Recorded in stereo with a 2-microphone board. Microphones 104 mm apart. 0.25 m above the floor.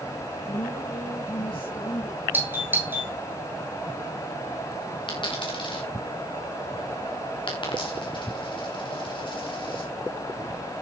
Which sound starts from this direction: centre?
A doorbell, at 2.3 s.